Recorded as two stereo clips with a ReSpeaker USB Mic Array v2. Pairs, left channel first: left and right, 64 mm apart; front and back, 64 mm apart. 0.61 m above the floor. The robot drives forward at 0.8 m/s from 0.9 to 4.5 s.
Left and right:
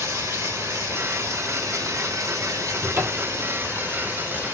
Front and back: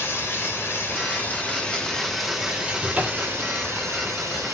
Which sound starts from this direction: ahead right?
Running water, at 0.0 s.